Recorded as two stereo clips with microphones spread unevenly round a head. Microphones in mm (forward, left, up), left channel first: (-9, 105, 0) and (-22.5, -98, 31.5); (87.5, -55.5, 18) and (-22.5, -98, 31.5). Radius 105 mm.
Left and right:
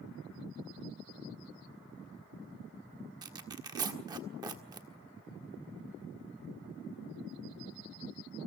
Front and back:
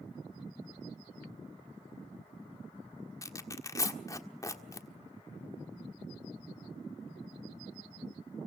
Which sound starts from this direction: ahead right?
Tearing paper, at 3.2 s.